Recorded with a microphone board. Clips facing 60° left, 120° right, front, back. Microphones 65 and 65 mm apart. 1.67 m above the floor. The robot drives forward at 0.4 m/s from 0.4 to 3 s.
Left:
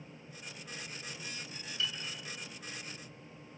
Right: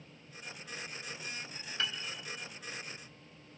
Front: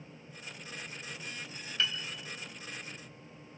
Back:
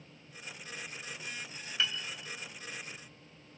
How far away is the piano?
About 3 m.